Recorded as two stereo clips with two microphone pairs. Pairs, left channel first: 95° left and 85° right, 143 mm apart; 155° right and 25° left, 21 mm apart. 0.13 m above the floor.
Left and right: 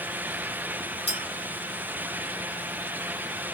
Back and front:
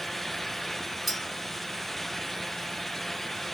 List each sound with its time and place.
1.1 s a clink: 115° left, 1.1 m